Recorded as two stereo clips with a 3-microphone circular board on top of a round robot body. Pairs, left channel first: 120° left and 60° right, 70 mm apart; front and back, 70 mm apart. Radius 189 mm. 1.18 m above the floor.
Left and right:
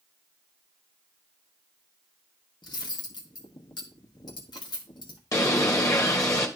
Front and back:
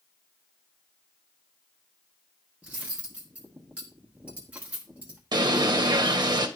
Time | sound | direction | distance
2.6 | cutlery clinking | 110° left | 1.3 m
5.3 | a bird | 160° left | 1.5 m